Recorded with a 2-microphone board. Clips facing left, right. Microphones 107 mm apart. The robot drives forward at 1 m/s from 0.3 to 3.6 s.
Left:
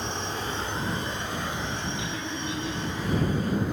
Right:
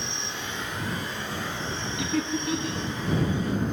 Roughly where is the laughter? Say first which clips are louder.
Right 5 dB; right.